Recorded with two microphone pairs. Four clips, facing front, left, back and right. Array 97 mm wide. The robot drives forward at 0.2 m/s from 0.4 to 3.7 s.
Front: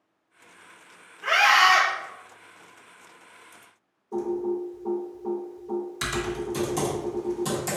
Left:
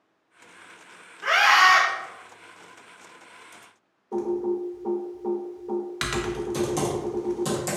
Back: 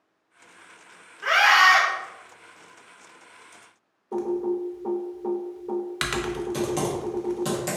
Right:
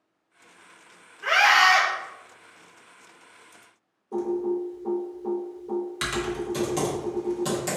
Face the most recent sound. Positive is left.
turn(degrees=-175)